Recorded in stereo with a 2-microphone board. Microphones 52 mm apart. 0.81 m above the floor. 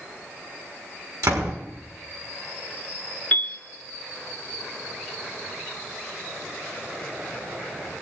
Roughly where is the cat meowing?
I don't hear a cat meowing.